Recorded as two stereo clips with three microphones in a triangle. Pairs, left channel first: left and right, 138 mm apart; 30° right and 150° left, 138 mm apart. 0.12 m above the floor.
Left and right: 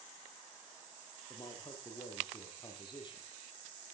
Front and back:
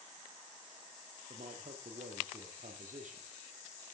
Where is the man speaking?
145° left, 4.5 m.